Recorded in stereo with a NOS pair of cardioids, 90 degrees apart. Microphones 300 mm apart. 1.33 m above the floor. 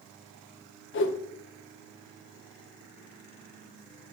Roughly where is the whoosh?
Ahead left.